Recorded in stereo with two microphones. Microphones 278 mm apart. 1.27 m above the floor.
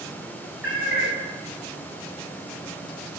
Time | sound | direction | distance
0.6 | a cat meowing | 55° right (ahead or behind) | 6 m